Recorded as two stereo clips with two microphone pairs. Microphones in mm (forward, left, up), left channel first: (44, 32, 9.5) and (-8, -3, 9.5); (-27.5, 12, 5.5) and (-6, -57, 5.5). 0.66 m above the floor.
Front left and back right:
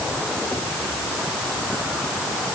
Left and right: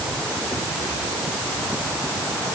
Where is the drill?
No drill in this recording.